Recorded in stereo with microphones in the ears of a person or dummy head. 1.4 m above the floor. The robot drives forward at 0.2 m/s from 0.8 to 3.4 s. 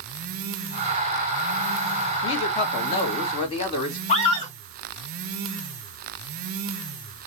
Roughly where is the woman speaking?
Left.